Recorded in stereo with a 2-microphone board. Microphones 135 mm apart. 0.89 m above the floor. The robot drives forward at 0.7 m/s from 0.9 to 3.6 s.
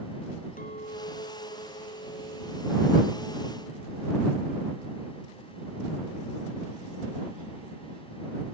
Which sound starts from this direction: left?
A clink, at 0.6 s.